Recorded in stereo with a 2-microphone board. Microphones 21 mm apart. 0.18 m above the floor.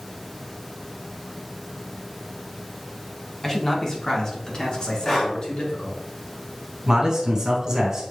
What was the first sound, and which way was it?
A man speaking, 20° left (ahead or behind).